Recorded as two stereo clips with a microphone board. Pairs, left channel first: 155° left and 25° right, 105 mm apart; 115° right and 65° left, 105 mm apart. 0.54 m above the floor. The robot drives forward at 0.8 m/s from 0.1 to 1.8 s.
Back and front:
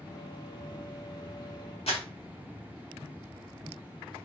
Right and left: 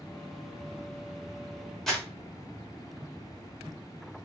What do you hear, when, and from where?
1.9 s crumpling: 160° left, 1.1 m